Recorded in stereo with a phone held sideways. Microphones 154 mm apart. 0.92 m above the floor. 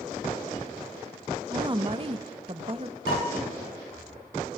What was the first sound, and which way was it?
A woman speaking, 25° right (ahead or behind).